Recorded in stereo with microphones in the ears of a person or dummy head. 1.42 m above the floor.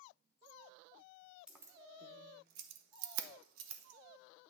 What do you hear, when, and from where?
1.5 s keys jangling: 5° right (ahead or behind), 0.8 m; by 4.5 s 65° right (ahead or behind), 1.2 m